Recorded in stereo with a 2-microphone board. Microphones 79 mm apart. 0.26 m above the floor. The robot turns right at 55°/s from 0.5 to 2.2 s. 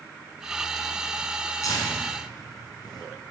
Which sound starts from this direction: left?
Tearing paper, at 1.6 s.